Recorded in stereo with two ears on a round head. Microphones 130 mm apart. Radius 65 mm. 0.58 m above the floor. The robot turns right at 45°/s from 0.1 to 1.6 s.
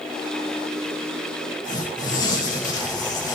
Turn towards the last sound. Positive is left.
turn(degrees=30)  # may be behind; listen again after turning